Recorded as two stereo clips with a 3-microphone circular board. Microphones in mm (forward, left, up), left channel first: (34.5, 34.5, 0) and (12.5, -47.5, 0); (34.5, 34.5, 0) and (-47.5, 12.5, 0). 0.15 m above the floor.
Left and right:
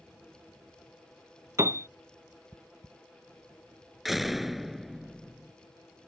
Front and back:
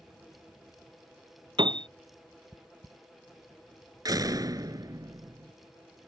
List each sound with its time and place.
1.6 s a piano: 160° right
4.0 s a door slam: 165° left